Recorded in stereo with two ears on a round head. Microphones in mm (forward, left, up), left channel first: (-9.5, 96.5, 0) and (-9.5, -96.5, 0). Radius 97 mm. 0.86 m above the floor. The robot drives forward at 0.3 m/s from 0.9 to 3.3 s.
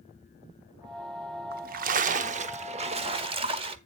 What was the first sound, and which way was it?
A splash, 50° right (ahead or behind).